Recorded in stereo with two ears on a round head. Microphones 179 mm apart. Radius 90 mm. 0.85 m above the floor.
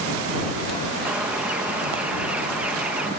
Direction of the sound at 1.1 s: 5° right (ahead or behind).